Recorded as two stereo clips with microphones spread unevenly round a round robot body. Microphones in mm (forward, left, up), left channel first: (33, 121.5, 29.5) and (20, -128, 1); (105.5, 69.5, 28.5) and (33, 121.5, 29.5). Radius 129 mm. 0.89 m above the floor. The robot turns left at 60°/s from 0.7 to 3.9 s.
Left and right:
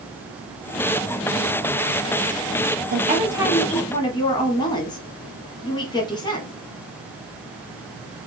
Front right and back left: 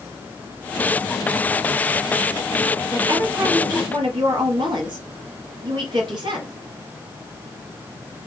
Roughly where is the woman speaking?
Behind right.